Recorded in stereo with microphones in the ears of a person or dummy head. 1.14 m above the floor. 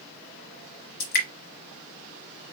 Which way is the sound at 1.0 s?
60° left (ahead or behind).